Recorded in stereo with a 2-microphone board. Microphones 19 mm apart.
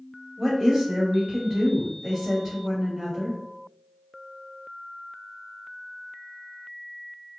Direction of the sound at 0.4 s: 10° left (ahead or behind).